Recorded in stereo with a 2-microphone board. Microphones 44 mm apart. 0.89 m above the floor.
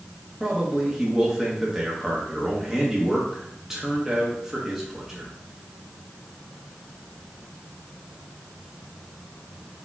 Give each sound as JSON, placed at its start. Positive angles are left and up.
{"t": 0.4, "sound": "a man speaking", "side_deg": -10, "distance_m": 0.9}